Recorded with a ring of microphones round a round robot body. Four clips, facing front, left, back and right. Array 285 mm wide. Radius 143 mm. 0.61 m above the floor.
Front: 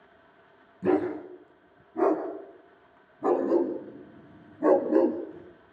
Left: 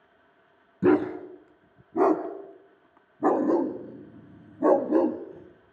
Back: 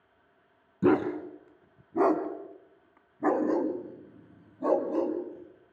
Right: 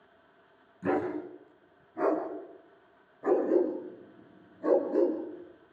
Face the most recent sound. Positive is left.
turn(degrees=60)